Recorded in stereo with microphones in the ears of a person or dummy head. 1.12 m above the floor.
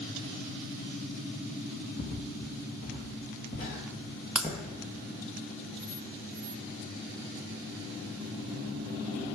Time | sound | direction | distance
2.0 | footsteps | 50° left (ahead or behind) | 1.6 m
4.3 | breaking glass | 5° right (ahead or behind) | 0.6 m